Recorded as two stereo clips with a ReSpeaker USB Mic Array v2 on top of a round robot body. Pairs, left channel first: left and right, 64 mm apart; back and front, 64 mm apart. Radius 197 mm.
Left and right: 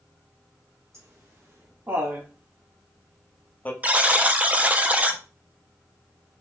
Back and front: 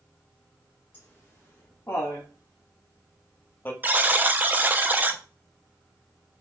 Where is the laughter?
125° right, 1.7 m; by 3.7 s 135° left, 1.2 m.